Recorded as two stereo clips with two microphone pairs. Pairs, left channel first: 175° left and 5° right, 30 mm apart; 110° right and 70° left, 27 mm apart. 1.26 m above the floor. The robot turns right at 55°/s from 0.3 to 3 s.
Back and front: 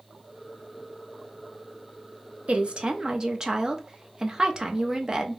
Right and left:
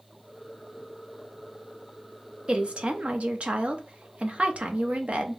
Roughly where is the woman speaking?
Ahead left.